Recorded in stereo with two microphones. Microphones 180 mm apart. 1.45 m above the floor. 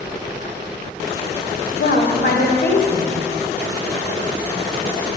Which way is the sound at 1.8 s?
60° left (ahead or behind).